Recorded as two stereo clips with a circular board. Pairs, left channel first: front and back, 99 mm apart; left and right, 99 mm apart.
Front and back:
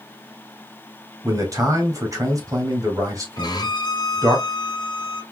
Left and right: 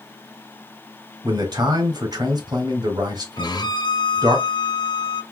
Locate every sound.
1.2 s a man speaking: 130° right, 1.7 m
3.4 s a violin: 45° left, 1.0 m